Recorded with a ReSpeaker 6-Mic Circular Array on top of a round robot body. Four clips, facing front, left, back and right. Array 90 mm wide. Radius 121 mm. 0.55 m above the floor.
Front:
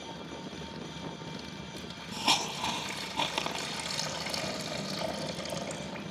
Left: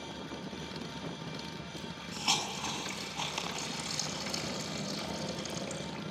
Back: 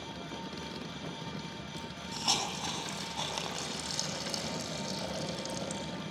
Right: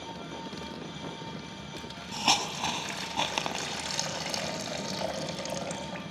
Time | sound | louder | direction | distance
1.8 | a hiss | right 3 dB, front 1 dB | 75° right | 6 m